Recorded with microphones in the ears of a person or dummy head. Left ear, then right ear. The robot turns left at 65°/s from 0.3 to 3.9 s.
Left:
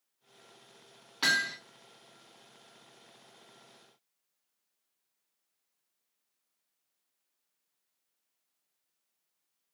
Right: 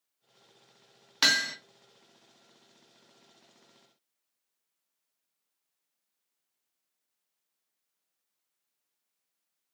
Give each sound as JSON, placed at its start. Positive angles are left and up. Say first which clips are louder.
{"t": 1.2, "sound": "hammering", "louder": "right 3 dB", "side_deg": -60, "distance_m": 1.0}